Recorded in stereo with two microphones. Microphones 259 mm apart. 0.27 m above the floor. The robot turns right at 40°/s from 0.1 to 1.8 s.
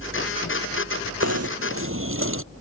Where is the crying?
I don't hear crying.